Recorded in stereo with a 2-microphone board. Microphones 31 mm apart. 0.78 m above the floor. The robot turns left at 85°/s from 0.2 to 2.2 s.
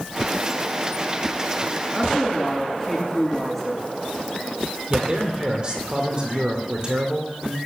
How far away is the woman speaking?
About 8 m.